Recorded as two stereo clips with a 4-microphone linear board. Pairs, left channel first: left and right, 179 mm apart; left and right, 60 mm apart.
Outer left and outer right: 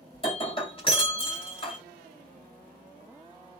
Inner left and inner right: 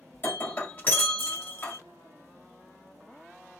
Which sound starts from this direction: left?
Breaking glass, at 0.1 s.